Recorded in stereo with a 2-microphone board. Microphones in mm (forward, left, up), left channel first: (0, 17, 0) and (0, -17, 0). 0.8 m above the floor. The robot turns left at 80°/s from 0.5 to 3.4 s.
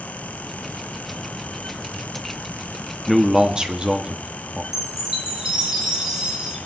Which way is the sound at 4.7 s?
15° right (ahead or behind).